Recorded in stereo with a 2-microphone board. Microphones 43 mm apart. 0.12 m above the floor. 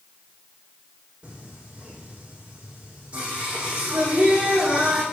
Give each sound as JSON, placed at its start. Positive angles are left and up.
{"t": 1.2, "sound": "singing", "side_deg": -30, "distance_m": 7.0}